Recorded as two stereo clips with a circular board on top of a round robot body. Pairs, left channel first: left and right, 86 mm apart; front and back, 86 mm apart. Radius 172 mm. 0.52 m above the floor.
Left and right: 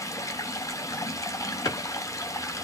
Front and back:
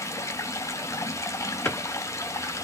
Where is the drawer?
75° left, 1.1 m.